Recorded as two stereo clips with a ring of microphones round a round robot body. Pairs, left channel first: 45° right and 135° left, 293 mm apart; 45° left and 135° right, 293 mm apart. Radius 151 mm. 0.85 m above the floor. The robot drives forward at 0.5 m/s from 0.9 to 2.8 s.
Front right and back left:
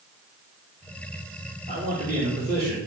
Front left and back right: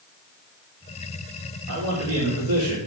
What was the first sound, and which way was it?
A man speaking, 165° right.